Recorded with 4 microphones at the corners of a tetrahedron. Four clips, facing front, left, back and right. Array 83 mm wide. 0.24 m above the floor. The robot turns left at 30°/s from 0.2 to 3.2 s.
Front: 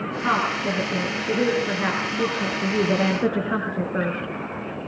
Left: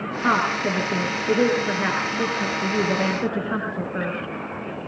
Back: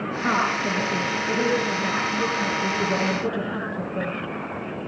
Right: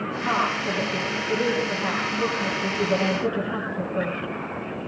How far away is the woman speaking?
About 4.5 m.